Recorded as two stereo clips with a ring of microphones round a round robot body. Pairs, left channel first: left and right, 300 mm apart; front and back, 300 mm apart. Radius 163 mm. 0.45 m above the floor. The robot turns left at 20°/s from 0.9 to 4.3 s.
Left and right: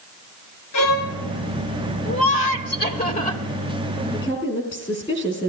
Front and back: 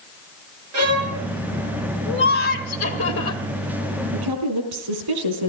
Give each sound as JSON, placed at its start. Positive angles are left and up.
{"t": 0.7, "sound": "a violin", "azimuth_deg": 135, "distance_m": 3.0}
{"t": 2.0, "sound": "laughter", "azimuth_deg": 50, "distance_m": 2.0}
{"t": 4.1, "sound": "a woman speaking", "azimuth_deg": 170, "distance_m": 4.0}